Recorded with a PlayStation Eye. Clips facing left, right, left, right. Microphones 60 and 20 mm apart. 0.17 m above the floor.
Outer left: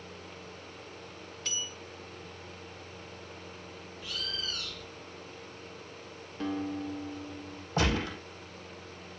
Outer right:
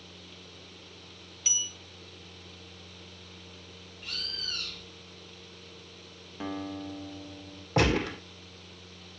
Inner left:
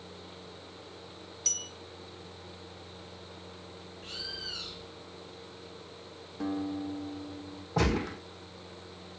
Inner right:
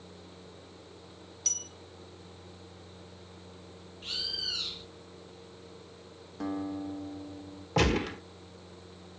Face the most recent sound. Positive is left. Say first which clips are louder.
# outer right 4 dB, inner right 2 dB
turn(degrees=-65)  # may be behind; listen again after turning